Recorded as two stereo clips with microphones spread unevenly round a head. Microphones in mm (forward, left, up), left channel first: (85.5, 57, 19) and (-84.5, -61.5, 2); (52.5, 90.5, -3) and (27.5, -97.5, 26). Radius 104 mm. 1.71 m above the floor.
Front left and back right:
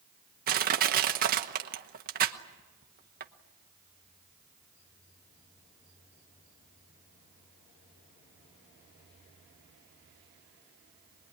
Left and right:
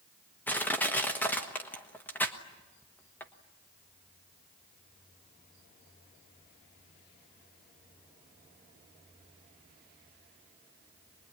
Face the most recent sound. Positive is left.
turn(degrees=170)